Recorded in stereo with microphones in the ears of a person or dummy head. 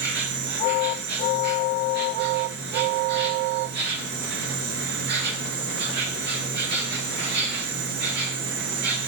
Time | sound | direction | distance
0.0 | an insect | 50° right (ahead or behind) | 1.5 m